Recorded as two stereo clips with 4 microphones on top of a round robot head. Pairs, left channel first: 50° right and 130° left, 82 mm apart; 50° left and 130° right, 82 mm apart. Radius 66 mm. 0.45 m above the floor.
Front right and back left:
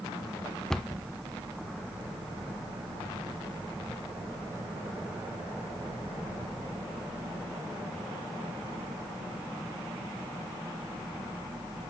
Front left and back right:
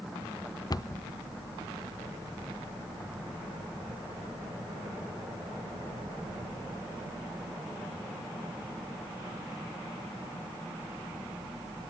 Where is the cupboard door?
35° left, 0.6 m.